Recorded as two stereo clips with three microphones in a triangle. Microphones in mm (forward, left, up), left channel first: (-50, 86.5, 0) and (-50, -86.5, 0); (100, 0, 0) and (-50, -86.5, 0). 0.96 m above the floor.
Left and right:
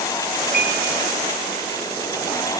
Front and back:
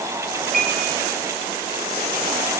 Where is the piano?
115° right, 6.5 m.